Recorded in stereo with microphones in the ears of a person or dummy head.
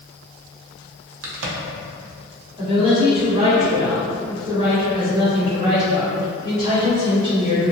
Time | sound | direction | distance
1.2 | a crack | 75° right (ahead or behind) | 0.5 m
2.6 | a woman speaking | 25° right (ahead or behind) | 1.3 m